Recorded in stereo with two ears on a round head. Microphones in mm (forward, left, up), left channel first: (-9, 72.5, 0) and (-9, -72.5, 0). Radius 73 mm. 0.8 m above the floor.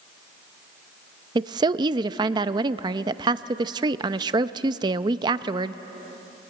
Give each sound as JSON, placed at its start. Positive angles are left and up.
{"t": 1.4, "sound": "a woman speaking", "side_deg": -25, "distance_m": 0.5}